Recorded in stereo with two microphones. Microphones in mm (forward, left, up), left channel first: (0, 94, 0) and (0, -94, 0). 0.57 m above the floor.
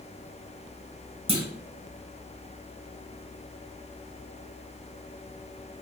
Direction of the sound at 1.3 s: 30° right (ahead or behind).